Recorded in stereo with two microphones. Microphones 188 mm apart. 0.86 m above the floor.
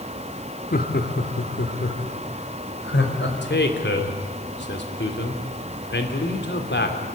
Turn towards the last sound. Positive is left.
turn(degrees=70)  # may be behind; listen again after turning